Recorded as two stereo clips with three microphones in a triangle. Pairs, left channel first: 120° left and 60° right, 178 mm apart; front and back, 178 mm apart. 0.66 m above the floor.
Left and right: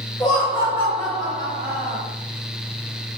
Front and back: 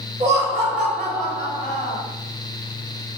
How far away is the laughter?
About 0.8 m.